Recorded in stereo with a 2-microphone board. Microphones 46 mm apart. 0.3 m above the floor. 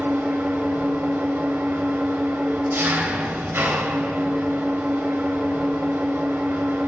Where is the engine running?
60° right (ahead or behind), 2.5 m.